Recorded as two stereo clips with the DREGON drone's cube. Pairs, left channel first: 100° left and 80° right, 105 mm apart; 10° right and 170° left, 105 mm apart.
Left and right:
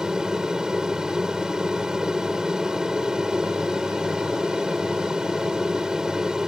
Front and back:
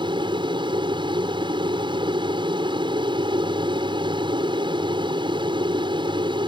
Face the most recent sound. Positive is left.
turn(degrees=-160)